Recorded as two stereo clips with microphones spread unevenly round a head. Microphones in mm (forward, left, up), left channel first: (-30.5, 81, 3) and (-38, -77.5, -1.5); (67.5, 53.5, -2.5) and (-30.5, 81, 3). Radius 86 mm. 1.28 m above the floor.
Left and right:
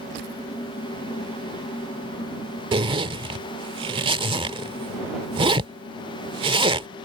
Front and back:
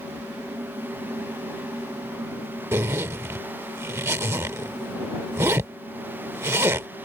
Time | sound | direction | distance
2.7 | a zipper | 140° right | ?